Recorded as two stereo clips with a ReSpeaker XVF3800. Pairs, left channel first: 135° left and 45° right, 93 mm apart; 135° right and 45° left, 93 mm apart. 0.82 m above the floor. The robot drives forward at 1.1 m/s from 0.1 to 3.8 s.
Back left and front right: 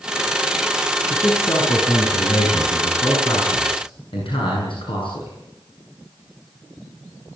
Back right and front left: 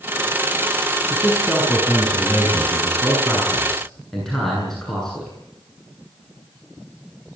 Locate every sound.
1.1 s a man speaking: 125° left, 6.5 m; by 5.3 s 140° left, 8.5 m